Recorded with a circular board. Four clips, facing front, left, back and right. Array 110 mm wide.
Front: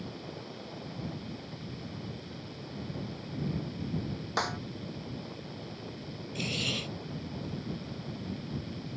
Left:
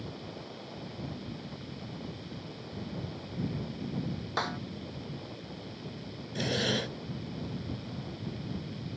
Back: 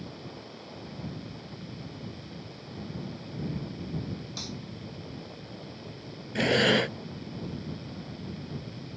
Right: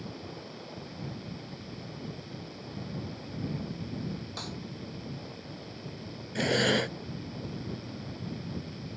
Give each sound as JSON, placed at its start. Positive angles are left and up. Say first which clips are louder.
{"t": 4.4, "sound": "a snare drum", "louder": "left 7 dB, front 8 dB", "azimuth_deg": 40}
{"t": 6.3, "sound": "breathing", "louder": "right 5 dB, back 14 dB", "azimuth_deg": -160}